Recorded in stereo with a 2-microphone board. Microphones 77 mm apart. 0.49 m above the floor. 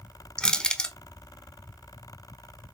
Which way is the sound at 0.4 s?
10° left (ahead or behind).